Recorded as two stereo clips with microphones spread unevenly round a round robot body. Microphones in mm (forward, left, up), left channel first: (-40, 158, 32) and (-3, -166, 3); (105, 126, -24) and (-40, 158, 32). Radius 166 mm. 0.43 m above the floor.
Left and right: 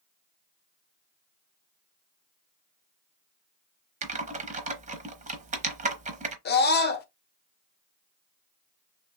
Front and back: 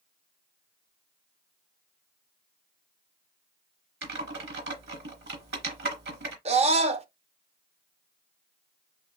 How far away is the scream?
About 0.8 m.